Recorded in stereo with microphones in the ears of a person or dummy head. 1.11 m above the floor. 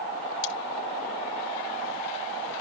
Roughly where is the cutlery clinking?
Left.